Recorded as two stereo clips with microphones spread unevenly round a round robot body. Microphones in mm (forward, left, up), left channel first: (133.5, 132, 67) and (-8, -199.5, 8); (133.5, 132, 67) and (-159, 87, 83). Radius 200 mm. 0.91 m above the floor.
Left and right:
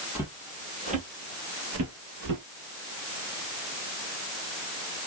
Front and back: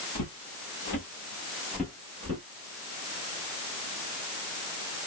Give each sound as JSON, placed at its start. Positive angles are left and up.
{"t": 0.1, "sound": "footsteps", "azimuth_deg": -25, "distance_m": 1.4}